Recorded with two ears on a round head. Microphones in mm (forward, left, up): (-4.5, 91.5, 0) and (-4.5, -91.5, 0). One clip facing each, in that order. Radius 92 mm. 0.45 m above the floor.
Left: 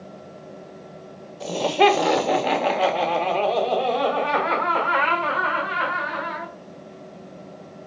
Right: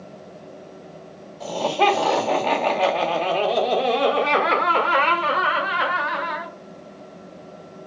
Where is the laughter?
30° left (ahead or behind), 1.6 m; by 6.5 s 60° right (ahead or behind), 2 m.